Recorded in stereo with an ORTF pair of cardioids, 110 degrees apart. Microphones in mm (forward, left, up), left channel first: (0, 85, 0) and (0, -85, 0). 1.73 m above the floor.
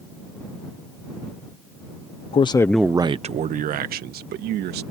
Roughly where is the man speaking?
Ahead left.